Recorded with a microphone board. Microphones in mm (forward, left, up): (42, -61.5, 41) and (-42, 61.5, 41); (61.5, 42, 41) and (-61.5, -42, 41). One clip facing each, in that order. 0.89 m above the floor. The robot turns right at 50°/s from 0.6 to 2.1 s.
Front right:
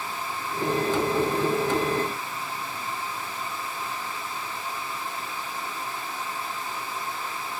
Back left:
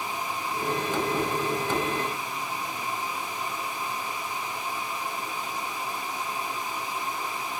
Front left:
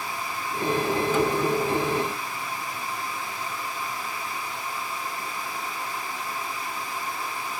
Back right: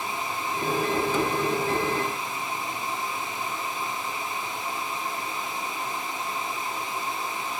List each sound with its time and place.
Only background noise.